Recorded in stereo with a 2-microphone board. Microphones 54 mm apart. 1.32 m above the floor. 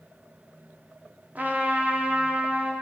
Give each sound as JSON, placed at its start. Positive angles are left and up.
{"t": 1.4, "sound": "a trumpet", "side_deg": -30, "distance_m": 0.5}